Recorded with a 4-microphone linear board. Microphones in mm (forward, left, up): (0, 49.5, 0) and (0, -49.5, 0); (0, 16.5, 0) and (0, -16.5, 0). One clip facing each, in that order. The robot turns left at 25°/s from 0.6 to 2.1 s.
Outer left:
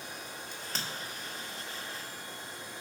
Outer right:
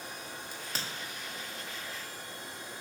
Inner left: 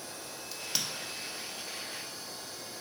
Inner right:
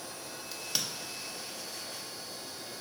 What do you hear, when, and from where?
0.5 s a crack: 5° right (ahead or behind), 0.8 m; by 0.9 s centre (ahead or behind), 0.8 m